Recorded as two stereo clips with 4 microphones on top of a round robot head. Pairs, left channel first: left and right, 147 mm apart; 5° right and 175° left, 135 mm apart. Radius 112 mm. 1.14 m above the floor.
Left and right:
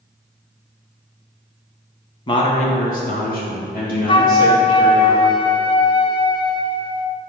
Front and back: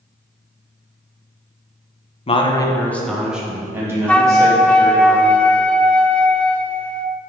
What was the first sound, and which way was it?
A man speaking, 30° left.